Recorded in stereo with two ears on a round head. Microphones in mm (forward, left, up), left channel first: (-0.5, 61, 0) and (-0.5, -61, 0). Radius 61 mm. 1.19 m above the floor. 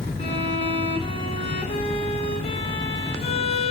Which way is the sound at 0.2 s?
45° left (ahead or behind).